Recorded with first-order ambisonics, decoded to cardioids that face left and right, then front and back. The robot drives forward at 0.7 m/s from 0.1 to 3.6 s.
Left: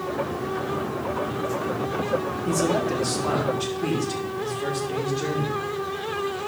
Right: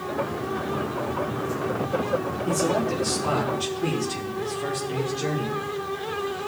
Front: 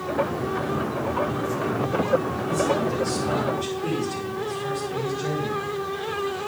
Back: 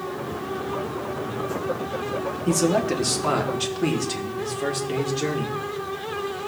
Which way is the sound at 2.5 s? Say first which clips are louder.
Left 1 dB, back 2 dB; 170° left.